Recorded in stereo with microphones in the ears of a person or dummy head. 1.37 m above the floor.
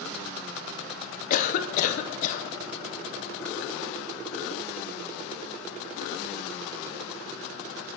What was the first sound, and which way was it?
A cough, 50° left (ahead or behind).